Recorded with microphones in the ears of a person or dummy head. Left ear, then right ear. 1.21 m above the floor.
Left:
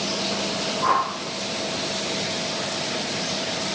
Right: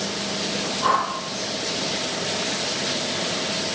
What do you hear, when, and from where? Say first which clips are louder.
0.8 s a whoosh: even; 5° left (ahead or behind), 4 m